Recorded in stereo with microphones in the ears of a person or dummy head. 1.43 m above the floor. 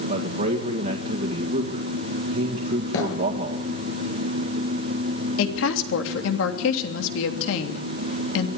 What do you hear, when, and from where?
0.1 s a man speaking: 50° right (ahead or behind), 1.9 m
2.9 s a thud: 75° left (ahead or behind), 9 m
5.4 s a woman speaking: 70° left (ahead or behind), 3 m